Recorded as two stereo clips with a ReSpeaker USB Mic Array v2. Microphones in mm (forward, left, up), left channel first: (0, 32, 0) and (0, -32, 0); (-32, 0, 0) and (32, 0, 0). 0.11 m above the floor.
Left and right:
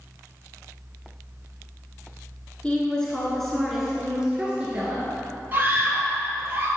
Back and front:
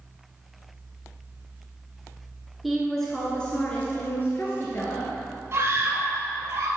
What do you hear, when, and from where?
2.6 s a woman speaking: 85° left, 1.5 m; by 5.1 s 150° right, 2 m
5.5 s a scream: 30° right, 1.8 m